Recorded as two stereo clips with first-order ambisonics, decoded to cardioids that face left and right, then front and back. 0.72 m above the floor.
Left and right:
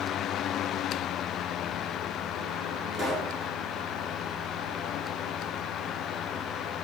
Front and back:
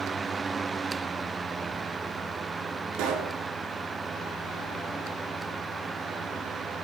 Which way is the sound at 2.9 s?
175° right.